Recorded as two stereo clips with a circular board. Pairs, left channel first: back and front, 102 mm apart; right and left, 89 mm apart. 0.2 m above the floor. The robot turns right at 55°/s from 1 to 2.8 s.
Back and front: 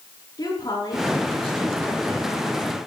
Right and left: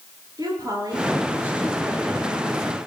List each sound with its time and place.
0.4 s a woman speaking: 130° left, 4 m; by 2.7 s 135° right, 4 m